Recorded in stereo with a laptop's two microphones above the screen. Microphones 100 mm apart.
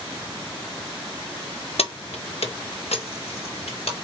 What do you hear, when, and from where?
1.8 s keys jangling: 75° left (ahead or behind), 0.6 m; by 3.9 s 85° left, 1.7 m